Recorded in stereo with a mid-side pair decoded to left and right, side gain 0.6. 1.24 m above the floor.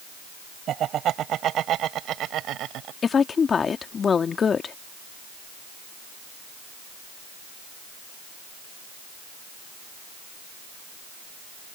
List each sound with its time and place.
0.7 s laughter: 50° right; by 2.9 s 60° right
3.0 s a woman speaking: 35° left